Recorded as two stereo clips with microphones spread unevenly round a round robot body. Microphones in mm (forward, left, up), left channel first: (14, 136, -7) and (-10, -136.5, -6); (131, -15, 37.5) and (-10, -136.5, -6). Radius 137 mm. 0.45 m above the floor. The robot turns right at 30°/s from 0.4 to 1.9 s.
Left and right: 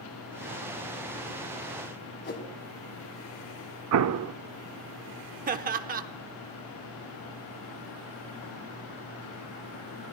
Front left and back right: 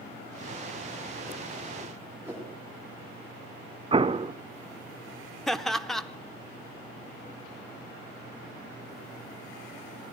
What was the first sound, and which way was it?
A whoosh, 140° left.